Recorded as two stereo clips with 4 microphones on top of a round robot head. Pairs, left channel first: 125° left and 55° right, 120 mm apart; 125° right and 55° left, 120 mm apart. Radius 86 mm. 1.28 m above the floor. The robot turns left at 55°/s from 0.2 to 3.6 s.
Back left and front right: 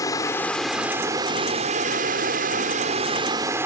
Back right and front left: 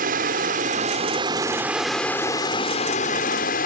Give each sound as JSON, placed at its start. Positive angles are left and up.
{"t": 0.0, "sound": "running water", "azimuth_deg": 60}